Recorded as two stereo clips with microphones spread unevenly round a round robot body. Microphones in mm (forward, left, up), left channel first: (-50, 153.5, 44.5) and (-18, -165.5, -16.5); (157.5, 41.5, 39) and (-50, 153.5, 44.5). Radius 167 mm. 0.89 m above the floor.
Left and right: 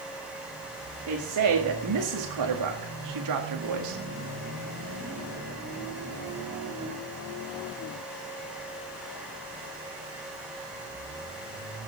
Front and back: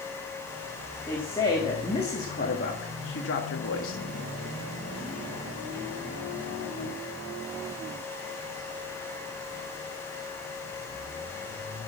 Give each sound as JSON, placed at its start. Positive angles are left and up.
{"t": 1.1, "sound": "a woman speaking", "azimuth_deg": -110, "distance_m": 1.9}